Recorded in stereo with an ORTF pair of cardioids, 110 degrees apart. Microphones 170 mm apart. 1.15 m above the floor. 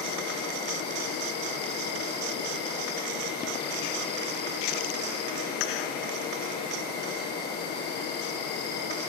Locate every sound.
0.0 s an insect: 65° left, 7.5 m